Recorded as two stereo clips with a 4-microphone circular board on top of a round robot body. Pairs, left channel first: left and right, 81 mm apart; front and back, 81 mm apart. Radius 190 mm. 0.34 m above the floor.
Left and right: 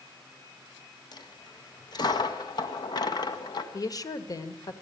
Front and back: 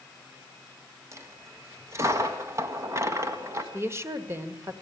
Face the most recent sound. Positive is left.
turn(degrees=125)